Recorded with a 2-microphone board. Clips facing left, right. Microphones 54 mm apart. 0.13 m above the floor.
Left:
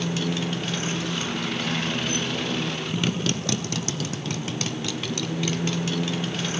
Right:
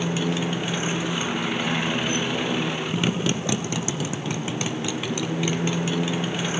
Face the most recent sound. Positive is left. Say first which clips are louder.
# right 2 dB
turn(degrees=-15)  # may be behind; listen again after turning